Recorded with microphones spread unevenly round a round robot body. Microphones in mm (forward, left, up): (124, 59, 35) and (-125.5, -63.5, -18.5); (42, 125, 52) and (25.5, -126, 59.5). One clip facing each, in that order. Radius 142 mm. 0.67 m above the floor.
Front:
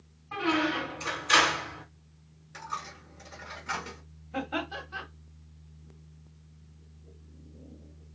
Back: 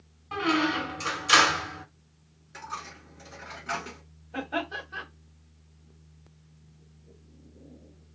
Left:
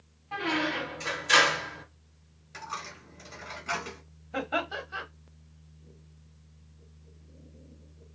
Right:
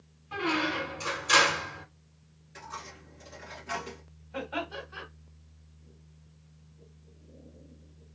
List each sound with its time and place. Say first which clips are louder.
0.3 s a squeak: back 2 dB, even; 175° right, 1.4 m
2.5 s a dropped coin: back 1 dB, left 1 dB; 110° left, 1.3 m
4.3 s laughter: back 1 dB, left 3 dB; 105° left, 1.4 m